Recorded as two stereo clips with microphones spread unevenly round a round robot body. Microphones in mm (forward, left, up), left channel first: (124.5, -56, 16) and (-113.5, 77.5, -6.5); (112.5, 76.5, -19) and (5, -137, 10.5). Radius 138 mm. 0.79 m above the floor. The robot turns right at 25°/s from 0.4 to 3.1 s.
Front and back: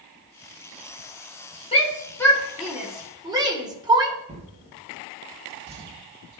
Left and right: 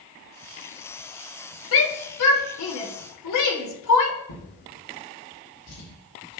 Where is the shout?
40° left, 2 m; by 4.2 s 75° left, 2 m.